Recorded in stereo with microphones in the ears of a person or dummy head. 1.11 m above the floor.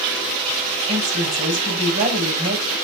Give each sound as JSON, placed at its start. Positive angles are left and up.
{"t": 0.9, "sound": "a woman speaking", "side_deg": -35, "distance_m": 7.0}